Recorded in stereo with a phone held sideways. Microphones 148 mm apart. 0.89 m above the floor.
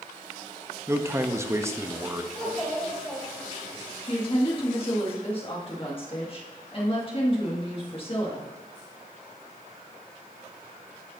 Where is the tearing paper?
I don't hear tearing paper.